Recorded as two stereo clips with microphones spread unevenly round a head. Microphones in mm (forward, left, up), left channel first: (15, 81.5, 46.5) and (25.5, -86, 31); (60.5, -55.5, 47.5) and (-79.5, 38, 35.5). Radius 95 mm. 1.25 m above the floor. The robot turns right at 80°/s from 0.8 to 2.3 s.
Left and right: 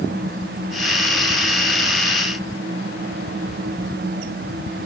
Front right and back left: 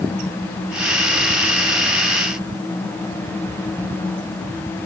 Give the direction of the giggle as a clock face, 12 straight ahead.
I don't hear a giggle.